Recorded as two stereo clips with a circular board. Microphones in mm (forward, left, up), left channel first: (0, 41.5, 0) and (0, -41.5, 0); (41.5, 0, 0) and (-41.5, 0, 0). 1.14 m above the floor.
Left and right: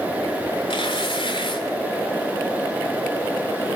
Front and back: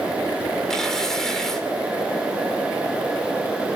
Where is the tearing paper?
85° left, 3 m.